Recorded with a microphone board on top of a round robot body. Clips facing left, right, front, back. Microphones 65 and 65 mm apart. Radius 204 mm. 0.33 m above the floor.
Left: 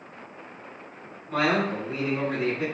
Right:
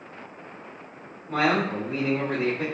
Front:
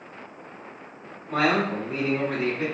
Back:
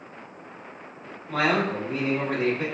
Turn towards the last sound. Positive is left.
turn(degrees=-120)